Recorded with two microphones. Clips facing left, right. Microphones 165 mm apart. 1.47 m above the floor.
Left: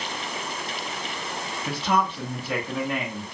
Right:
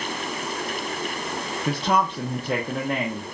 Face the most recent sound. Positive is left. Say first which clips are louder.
# right 2 dB
turn(degrees=-40)  # may be behind; listen again after turning